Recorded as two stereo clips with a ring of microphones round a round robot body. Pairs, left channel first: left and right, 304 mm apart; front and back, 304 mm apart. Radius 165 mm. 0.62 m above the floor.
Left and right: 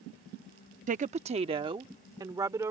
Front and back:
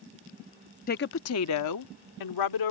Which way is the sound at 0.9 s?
45° right.